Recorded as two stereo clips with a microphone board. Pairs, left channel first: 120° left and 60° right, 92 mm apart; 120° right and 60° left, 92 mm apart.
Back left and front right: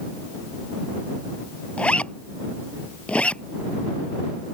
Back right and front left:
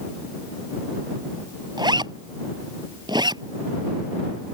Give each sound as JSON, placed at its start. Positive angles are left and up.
{"t": 1.8, "sound": "a zipper", "azimuth_deg": 45}